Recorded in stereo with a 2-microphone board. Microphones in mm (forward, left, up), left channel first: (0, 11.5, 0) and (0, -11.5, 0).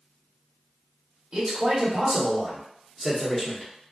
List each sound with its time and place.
1.3 s a man speaking: 40° right (ahead or behind), 1.5 m; by 3.7 s 20° left (ahead or behind), 0.9 m